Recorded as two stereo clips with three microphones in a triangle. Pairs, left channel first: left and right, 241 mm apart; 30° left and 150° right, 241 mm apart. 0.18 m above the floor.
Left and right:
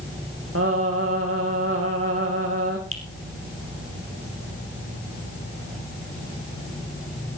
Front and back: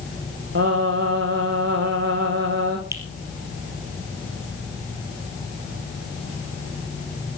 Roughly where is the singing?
Behind right.